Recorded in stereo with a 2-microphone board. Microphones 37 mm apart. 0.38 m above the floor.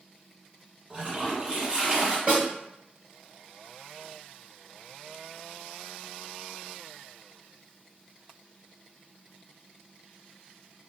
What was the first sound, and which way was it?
A toilet flushing, 30° right (ahead or behind).